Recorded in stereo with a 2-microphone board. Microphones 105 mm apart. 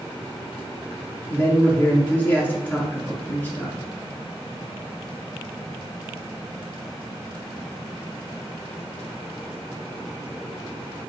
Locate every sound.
1.3 s a man speaking: 15° left (ahead or behind), 1.6 m